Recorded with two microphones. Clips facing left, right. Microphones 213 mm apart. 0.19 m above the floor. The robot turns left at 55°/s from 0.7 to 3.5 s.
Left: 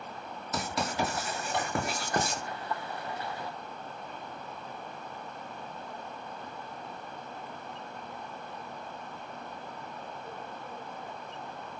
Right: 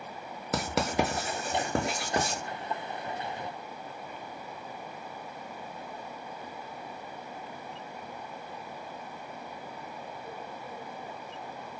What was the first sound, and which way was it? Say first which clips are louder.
Writing: right 4 dB; 80° right.